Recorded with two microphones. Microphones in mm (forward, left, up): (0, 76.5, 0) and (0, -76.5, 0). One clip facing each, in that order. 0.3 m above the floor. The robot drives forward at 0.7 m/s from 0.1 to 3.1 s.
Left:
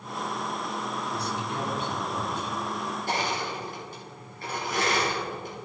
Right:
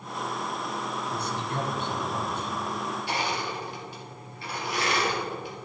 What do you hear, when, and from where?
1.1 s a man speaking: 50° right (ahead or behind), 2 m; by 2.5 s 55° right (ahead or behind), 2 m
3.1 s crushing: 45° left (ahead or behind), 3 m